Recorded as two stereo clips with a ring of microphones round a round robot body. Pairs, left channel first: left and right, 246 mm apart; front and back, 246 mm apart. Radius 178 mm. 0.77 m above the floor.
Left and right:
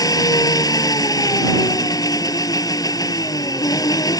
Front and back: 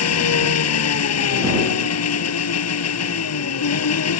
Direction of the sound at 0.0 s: 15° left.